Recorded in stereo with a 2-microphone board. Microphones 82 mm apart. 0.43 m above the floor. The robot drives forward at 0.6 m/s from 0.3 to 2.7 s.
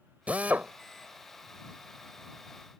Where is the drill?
20° right (ahead or behind).